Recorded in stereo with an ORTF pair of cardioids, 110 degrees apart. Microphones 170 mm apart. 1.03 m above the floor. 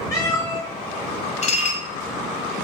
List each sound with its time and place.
0.1 s a cat meowing: 20° left, 1.4 m
1.4 s dishes clattering: 45° left, 0.7 m